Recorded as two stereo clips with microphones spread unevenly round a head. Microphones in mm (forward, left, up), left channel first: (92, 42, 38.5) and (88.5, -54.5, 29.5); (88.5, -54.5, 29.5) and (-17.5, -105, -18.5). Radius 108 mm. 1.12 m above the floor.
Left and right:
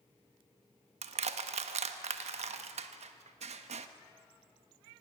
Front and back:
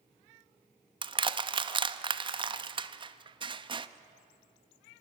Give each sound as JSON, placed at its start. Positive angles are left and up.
{"t": 1.0, "sound": "crushing", "azimuth_deg": -100, "distance_m": 0.8}